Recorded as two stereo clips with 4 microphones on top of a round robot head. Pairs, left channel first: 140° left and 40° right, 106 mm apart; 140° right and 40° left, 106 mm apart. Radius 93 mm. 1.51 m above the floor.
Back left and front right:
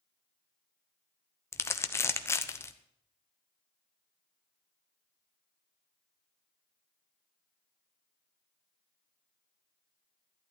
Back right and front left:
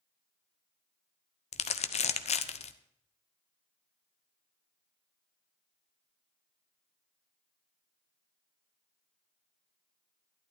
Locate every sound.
1.5 s crumpling: 155° right, 1.0 m